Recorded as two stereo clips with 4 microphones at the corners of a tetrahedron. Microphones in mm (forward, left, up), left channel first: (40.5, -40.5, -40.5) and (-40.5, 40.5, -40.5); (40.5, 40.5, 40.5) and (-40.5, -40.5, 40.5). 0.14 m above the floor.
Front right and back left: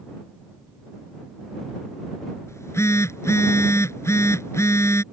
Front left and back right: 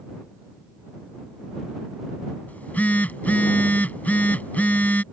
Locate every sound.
2.5 s a phone buzzing: 15° right